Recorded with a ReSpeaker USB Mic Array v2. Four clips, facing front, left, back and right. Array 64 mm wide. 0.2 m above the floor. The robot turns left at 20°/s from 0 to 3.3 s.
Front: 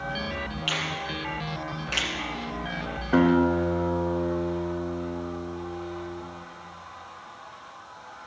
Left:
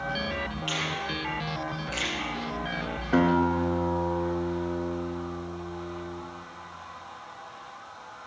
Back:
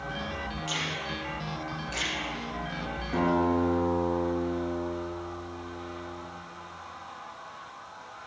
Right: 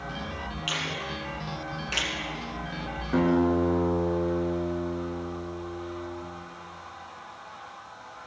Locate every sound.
0.7 s a finger snap: 15° right, 1.9 m; by 2.1 s 45° right, 1.9 m
3.1 s a guitar: 30° left, 1.1 m; by 6.2 s 25° left, 1.1 m